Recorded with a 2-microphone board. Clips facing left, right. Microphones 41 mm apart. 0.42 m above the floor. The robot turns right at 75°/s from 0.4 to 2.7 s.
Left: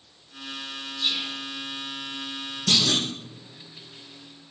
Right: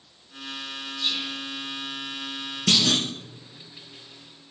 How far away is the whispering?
About 1.0 m.